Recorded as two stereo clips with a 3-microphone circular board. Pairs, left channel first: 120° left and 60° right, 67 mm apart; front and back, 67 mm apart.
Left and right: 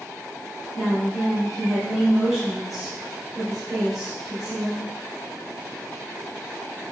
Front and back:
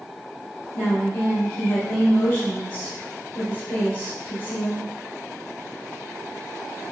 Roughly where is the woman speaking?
Ahead.